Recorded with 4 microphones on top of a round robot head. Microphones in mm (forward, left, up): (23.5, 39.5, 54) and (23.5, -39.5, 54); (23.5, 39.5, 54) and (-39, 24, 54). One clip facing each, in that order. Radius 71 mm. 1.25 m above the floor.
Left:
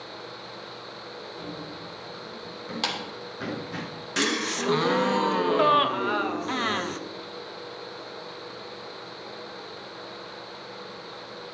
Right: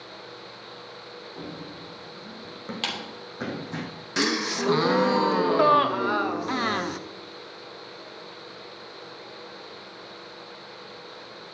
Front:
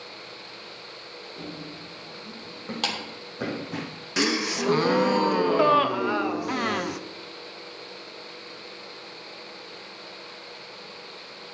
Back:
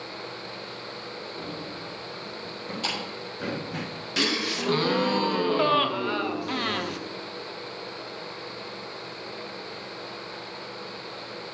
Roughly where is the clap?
Ahead.